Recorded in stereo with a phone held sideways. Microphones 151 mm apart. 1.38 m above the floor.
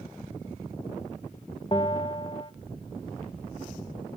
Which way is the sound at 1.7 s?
35° left (ahead or behind).